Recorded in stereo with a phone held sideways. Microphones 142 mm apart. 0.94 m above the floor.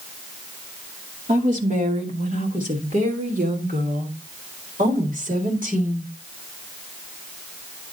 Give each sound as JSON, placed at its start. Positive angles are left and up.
{"t": 1.3, "sound": "a woman speaking", "side_deg": -65, "distance_m": 2.5}